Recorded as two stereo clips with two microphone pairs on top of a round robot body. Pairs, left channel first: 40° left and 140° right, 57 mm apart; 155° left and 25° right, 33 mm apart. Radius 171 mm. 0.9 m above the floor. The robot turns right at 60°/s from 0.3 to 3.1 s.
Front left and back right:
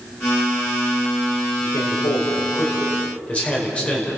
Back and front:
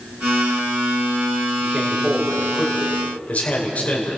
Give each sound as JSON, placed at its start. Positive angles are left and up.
{"t": 1.6, "sound": "a man speaking", "azimuth_deg": 15, "distance_m": 5.5}